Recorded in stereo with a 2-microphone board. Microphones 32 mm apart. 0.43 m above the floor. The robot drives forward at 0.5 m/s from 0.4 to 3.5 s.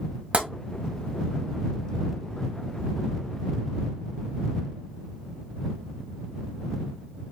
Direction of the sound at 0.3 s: 40° right (ahead or behind).